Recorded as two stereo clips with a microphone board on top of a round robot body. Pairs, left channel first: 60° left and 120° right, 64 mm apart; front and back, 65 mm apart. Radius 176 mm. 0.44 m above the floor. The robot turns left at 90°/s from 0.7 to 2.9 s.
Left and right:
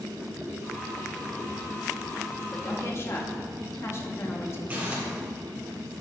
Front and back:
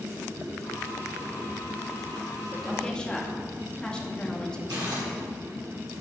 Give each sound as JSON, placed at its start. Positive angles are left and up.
{"t": 2.5, "sound": "a woman speaking", "azimuth_deg": 105, "distance_m": 1.8}
{"t": 4.7, "sound": "crumpling", "azimuth_deg": 175, "distance_m": 2.5}